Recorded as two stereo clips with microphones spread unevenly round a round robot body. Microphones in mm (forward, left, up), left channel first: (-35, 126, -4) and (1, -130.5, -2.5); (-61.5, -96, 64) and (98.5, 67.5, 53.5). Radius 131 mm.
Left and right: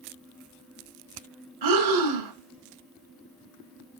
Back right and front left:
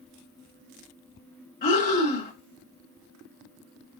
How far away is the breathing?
About 2.5 m.